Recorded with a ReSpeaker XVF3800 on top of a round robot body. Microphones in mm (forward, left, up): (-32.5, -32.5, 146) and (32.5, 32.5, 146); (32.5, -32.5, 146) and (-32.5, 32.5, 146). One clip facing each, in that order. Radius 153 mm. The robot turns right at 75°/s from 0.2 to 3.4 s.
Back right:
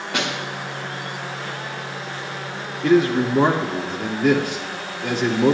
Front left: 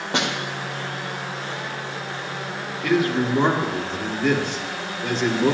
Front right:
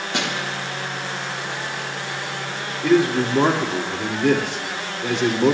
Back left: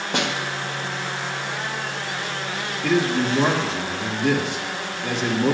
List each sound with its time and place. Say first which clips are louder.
0.1 s a snare drum: front left 1 dB, back left 2 dB; 100° left, 4 m; by 0.3 s 110° left, 4 m
2.8 s a man speaking: back right 4 dB, front right 4 dB; 95° right, 2.5 m; by 5.5 s 55° right, 2.5 m